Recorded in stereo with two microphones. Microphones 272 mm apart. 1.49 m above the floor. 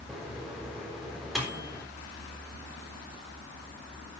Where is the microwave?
Centre (ahead or behind), 3.5 m.